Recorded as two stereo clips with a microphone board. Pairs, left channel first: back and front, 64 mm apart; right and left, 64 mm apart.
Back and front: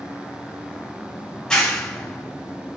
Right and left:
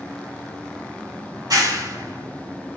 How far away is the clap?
About 2.5 m.